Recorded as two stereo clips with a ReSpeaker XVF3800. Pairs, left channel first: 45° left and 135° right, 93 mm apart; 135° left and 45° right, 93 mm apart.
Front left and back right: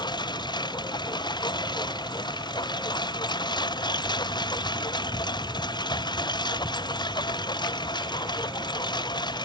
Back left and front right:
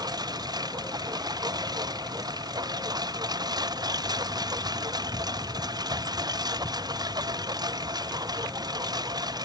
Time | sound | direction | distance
0.0 | a lawn mower | 5° left | ?